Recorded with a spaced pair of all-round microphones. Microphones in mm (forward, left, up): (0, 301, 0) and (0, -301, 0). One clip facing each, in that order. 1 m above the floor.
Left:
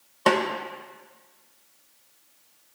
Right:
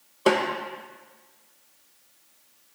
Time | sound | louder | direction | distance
0.3 | a snare drum | right 1 dB | 25° left (ahead or behind) | 0.7 m